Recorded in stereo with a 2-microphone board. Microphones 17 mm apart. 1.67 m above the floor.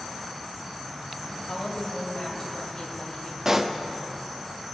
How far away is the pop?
About 0.5 m.